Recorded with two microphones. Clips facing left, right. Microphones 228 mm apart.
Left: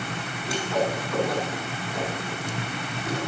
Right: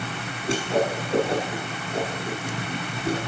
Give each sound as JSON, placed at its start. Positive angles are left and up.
{"t": 0.5, "sound": "a whoosh", "side_deg": -30, "distance_m": 6.5}